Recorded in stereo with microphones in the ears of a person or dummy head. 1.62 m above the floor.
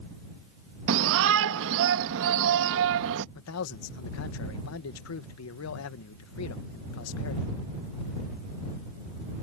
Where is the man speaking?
65° left (ahead or behind).